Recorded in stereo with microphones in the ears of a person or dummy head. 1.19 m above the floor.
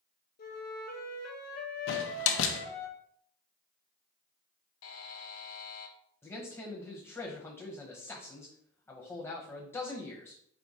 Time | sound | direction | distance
0.4 | a flute | 45° left (ahead or behind) | 0.8 m
1.9 | a door slam | 70° left (ahead or behind) | 0.7 m
4.8 | a buzzer | 80° left | 0.6 m
6.2 | a man speaking | 15° left (ahead or behind) | 1.0 m